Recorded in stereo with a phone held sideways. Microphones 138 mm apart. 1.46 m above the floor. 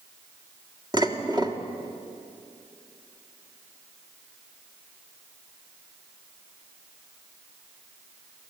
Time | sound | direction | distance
0.9 | dishes clattering | 30° right (ahead or behind) | 1.8 m